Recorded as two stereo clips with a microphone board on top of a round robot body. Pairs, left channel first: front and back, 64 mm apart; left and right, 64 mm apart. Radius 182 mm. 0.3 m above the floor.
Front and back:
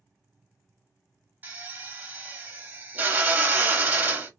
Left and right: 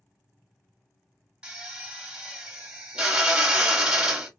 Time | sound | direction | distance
1.4 | a drill | 155° right | 1.4 m